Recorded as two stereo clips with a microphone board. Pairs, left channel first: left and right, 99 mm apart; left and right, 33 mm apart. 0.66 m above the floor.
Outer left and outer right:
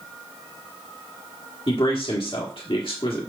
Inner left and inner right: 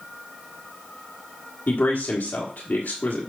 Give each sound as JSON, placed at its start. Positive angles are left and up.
{"t": 1.7, "sound": "a man speaking", "side_deg": 60, "distance_m": 1.5}